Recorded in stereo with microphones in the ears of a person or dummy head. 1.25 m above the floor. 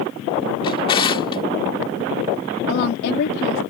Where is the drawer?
30° left (ahead or behind).